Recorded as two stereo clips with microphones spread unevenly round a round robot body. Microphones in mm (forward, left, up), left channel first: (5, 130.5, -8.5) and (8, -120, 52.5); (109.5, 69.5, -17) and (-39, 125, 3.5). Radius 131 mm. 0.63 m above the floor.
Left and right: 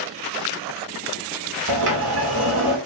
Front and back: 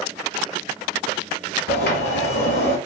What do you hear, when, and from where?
1.7 s a sliding door: 60° right, 0.9 m